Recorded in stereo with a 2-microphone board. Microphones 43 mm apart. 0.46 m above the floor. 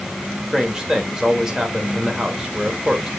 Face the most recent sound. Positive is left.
turn(degrees=-15)  # may be behind; listen again after turning